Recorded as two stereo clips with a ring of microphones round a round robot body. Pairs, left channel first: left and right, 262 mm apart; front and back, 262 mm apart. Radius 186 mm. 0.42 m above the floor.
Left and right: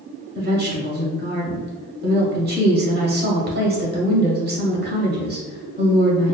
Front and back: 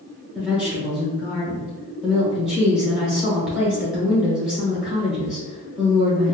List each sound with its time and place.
0.3 s a woman speaking: 95° right, 1.0 m